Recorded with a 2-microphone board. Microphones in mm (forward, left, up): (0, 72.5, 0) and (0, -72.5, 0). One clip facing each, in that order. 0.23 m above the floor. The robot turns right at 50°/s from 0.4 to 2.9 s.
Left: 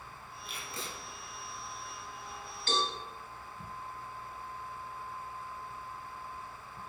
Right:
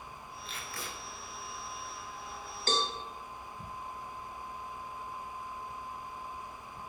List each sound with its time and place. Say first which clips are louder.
0.5 s tape being pulled: left 1 dB; 10° left (ahead or behind), 0.9 m; by 0.9 s 35° left (ahead or behind), 0.9 m
2.7 s a cowbell: right 1 dB; 45° right (ahead or behind), 1.1 m; by 2.9 s 40° right (ahead or behind), 1.1 m